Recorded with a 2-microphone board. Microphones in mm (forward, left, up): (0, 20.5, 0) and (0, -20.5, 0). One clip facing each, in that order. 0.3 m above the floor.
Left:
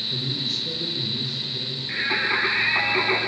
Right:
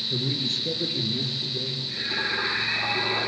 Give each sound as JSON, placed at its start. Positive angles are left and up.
{"t": 0.1, "sound": "a man speaking", "side_deg": -60, "distance_m": 6.5}
{"t": 1.9, "sound": "singing", "side_deg": 70, "distance_m": 8.0}